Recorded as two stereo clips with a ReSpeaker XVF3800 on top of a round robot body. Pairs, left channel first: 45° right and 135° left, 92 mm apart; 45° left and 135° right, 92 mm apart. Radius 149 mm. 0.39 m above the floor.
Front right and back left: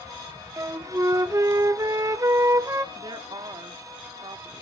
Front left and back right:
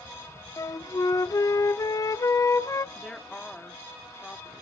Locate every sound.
0.6 s a flute: 90° left, 0.7 m
3.0 s a woman speaking: 120° left, 1.1 m